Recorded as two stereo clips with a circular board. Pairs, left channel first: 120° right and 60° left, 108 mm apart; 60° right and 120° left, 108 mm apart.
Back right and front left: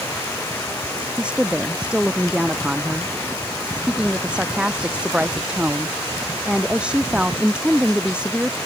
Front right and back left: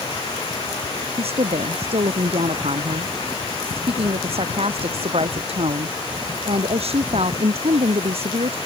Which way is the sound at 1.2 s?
140° left.